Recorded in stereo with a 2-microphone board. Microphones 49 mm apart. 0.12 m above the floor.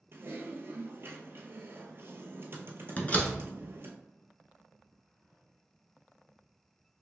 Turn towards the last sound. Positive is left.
turn(degrees=30)  # may be behind; listen again after turning